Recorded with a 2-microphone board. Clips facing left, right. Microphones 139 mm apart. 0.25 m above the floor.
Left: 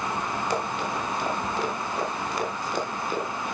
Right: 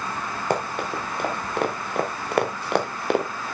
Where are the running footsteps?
55° right (ahead or behind), 4.5 m; by 3.2 s 75° right (ahead or behind), 2.5 m.